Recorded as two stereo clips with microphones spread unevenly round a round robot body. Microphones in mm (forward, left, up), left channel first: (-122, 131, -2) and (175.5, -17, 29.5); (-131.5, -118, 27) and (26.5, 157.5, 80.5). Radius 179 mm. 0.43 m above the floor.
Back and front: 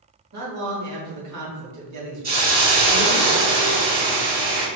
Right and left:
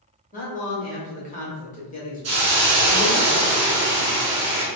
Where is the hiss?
35° left, 1.8 m.